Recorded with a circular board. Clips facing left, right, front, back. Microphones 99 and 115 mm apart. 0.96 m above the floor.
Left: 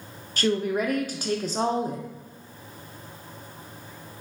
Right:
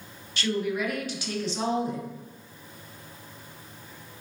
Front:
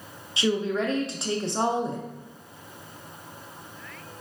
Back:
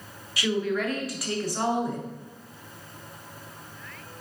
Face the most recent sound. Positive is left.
turn(degrees=60)